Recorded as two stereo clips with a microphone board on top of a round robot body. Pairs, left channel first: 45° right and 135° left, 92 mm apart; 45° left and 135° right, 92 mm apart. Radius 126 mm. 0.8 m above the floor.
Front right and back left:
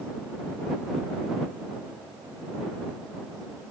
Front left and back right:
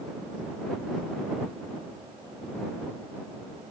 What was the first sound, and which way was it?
Only background noise.